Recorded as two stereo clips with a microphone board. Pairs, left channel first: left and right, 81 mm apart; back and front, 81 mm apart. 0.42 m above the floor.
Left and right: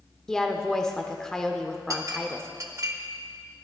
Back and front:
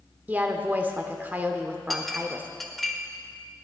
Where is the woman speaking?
20° left, 0.8 m.